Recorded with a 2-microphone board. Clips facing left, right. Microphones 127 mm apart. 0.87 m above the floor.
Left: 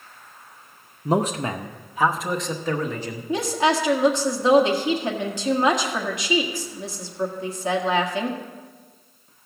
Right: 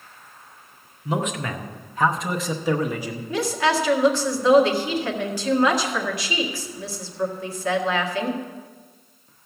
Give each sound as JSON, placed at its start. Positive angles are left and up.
{"t": 1.1, "sound": "a man speaking", "side_deg": 50, "distance_m": 0.6}
{"t": 3.3, "sound": "a woman speaking", "side_deg": 25, "distance_m": 1.5}